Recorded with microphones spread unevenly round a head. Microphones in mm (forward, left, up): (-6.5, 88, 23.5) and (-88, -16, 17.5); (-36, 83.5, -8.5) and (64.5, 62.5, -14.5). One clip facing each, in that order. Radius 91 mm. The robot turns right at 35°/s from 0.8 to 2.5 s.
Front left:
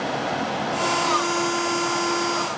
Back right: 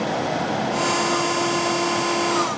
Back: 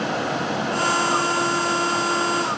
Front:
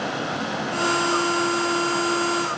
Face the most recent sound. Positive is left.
No sound to turn to.